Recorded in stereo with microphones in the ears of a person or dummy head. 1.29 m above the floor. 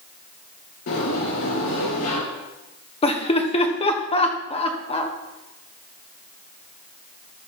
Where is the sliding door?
60° left (ahead or behind), 5.5 m.